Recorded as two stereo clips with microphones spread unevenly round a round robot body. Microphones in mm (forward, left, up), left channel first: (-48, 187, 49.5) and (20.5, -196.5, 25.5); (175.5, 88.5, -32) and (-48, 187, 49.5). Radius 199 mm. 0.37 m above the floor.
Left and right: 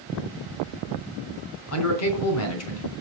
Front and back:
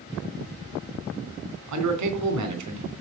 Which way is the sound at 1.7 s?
155° left.